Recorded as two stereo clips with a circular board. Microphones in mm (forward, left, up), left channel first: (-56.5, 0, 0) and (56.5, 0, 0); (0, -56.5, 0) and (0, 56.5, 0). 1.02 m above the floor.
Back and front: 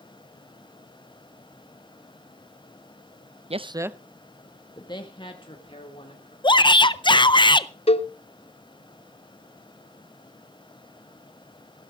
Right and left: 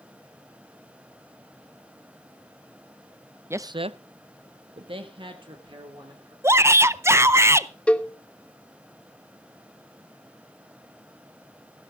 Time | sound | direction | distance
3.5 | a man speaking | 20° left | 0.6 m
6.4 | a shout | 150° left | 0.5 m
7.9 | a cowbell | 170° right | 0.6 m